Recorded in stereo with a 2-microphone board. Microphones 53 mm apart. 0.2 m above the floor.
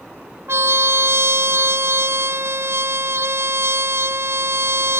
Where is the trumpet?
50° right (ahead or behind).